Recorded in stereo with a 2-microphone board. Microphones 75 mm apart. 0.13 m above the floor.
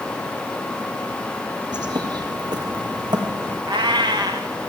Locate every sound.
1.7 s a bird: 70° right (ahead or behind), 4 m
3.7 s a cat meowing: 80° right, 3.5 m